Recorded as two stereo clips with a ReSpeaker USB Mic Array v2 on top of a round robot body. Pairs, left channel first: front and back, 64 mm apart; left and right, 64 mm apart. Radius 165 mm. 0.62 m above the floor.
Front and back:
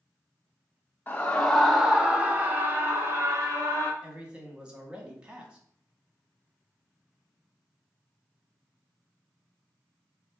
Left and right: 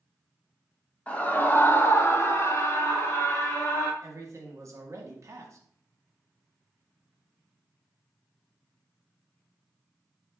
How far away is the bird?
No bird in this recording.